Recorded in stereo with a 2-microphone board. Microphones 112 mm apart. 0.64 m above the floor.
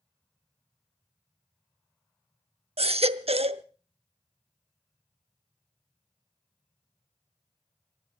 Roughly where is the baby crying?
Right.